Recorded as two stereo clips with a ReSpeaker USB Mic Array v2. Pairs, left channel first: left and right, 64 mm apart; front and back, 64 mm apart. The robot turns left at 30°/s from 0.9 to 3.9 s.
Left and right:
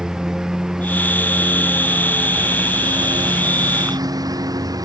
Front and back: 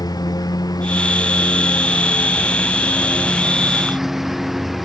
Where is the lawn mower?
10° right; by 4.8 s 90° right.